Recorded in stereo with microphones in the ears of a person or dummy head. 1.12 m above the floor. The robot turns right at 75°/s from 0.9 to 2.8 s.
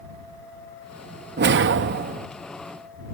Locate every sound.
1.4 s a whoosh: 115° right; by 2.3 s 50° right